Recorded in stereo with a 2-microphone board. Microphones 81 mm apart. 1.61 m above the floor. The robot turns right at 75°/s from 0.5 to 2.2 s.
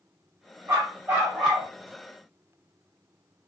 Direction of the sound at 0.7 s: 75° right.